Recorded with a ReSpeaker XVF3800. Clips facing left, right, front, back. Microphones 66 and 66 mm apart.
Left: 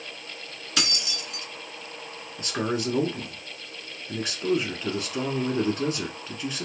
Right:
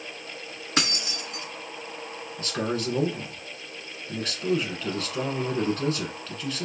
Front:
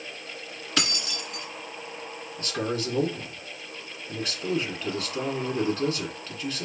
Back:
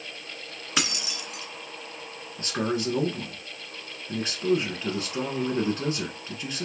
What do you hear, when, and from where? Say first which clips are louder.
0.8 s keys jangling: right 2 dB, even; 110° right, 0.9 m
2.4 s a man speaking: left 1 dB, back 2 dB; 145° left, 1.2 m